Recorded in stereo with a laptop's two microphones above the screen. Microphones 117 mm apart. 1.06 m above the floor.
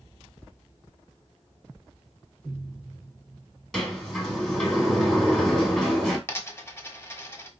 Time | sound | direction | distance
3.7 | a sliding door | centre (ahead or behind) | 2 m
6.3 | a dropped coin | 20° left (ahead or behind) | 1.3 m